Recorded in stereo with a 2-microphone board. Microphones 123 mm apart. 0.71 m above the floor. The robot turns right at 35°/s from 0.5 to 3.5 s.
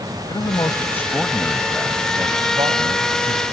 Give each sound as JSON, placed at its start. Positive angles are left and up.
{"t": 0.3, "sound": "a man speaking", "azimuth_deg": 145}